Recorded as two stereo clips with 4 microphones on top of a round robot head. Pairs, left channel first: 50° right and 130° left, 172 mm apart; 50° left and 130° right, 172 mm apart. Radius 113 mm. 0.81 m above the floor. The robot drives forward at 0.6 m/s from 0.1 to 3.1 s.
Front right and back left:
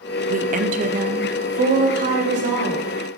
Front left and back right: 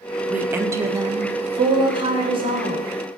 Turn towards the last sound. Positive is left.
turn(degrees=175)